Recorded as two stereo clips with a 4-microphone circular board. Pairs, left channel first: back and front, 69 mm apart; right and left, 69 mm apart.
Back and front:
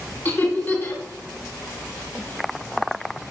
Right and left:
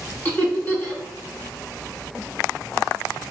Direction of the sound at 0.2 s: 140° right.